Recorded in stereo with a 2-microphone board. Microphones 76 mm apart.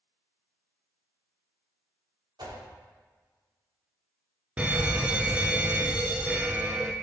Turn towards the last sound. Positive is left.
turn(degrees=-15)  # may be behind; listen again after turning